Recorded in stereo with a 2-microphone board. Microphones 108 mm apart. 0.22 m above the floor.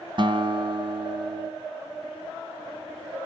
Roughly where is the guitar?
Right.